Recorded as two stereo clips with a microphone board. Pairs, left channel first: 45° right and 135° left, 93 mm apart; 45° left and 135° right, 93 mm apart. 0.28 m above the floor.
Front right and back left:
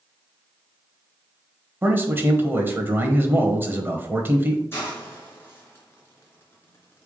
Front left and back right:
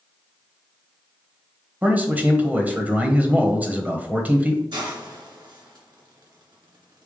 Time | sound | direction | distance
1.8 | a man speaking | 175° left | 1.3 m
4.7 | a hiss | 105° right | 2.5 m